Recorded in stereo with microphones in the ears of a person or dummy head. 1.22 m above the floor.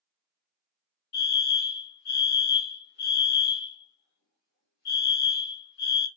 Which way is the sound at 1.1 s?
55° left (ahead or behind).